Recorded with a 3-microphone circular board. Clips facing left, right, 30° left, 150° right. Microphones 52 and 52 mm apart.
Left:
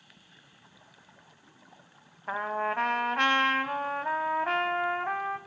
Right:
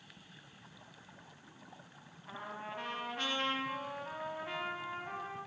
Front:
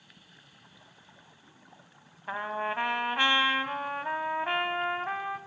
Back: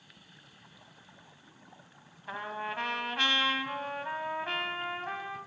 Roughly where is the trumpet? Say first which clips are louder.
Left 14 dB, front 5 dB; left.